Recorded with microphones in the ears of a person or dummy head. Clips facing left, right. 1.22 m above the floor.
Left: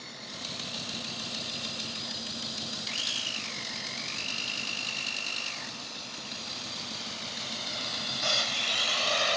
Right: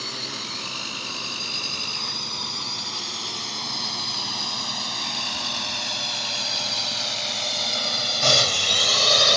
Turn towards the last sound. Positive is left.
turn(degrees=-60)  # may be behind; listen again after turning